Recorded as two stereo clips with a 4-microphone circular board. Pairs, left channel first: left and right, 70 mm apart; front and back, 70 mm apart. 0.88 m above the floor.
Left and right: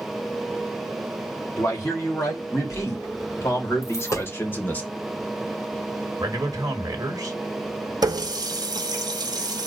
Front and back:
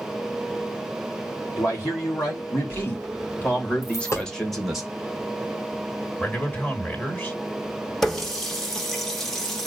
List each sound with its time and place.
1.6 s a man speaking: 45° left, 2.5 m; by 4.8 s 110° left, 0.9 m
3.8 s a dropped coin: 45° left, 1.2 m
6.2 s a man speaking: 60° right, 1.2 m
8.0 s a running tap: 85° right, 0.7 m